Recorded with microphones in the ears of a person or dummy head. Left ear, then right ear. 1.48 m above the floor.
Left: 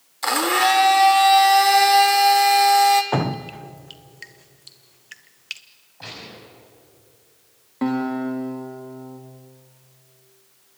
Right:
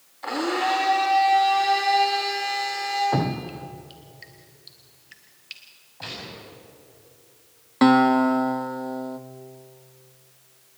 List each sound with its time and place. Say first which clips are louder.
0.2 s a blender: left 6 dB; 65° left (ahead or behind), 1.9 m
3.1 s dripping: left 2 dB; 45° left (ahead or behind), 0.9 m
6.0 s a gunshot: right 1 dB; 5° right (ahead or behind), 8.5 m
7.8 s a guitar: right 8 dB; 50° right (ahead or behind), 1.3 m